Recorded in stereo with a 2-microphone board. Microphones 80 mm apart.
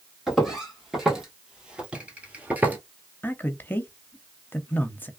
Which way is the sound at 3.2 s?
25° left (ahead or behind).